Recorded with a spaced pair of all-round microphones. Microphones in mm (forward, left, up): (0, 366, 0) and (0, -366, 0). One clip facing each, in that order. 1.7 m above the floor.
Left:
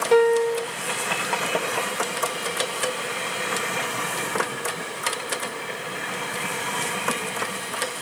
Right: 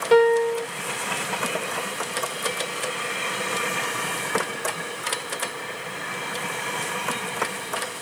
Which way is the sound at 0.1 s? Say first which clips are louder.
Right 1 dB; 50° right (ahead or behind).